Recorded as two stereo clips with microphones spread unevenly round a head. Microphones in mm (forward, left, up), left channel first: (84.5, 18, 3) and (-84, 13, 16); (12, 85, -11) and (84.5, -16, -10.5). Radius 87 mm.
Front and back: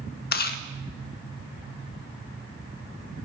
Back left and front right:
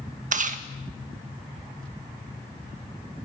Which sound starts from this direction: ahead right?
Chewing, at 0.3 s.